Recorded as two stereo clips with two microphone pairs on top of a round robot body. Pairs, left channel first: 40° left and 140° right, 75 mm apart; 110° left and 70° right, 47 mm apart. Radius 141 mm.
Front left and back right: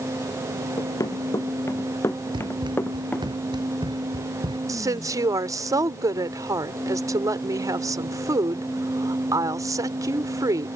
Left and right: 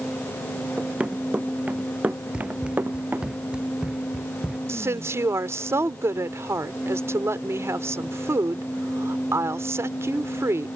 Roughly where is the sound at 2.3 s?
Behind right.